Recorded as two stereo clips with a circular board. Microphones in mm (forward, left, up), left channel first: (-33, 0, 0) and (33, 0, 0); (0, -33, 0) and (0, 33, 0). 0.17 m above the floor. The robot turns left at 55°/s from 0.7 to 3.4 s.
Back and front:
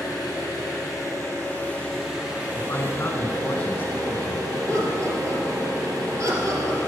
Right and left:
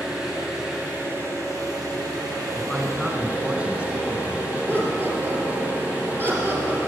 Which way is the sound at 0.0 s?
165° left.